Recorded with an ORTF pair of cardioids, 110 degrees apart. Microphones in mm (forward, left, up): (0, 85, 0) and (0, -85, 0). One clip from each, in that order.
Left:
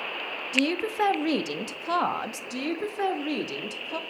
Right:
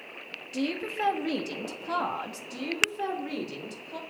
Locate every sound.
0.5 s a woman speaking: 35° left, 1.2 m
2.5 s a woman speaking: 40° left, 2 m